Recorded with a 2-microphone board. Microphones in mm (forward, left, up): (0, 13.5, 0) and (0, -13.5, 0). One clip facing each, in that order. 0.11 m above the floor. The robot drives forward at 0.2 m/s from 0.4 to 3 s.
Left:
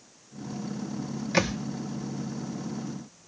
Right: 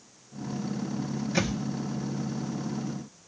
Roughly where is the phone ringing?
No phone ringing in this recording.